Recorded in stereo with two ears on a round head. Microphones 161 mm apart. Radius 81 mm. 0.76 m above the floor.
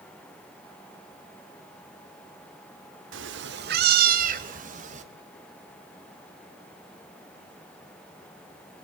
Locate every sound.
3.1 s a cat meowing: 80° right, 0.8 m; by 5.0 s 40° right (ahead or behind), 1.8 m